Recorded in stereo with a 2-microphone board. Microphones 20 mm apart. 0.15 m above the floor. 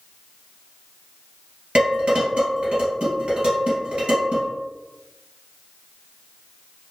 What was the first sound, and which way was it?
Dishes clattering, 55° right (ahead or behind).